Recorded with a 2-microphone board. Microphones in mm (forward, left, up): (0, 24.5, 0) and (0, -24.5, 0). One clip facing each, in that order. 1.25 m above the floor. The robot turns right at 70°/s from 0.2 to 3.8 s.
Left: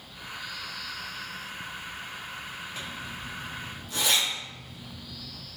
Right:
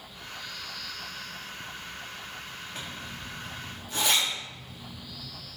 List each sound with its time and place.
2.8 s a zipper: 70° right (ahead or behind), 1.6 m; by 5.3 s 30° right (ahead or behind), 1.6 m